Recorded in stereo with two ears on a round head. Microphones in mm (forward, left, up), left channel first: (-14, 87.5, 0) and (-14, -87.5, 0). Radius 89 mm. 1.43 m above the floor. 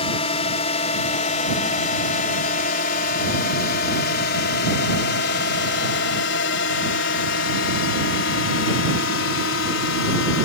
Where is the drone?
30° left (ahead or behind); by 10.4 s 70° left (ahead or behind).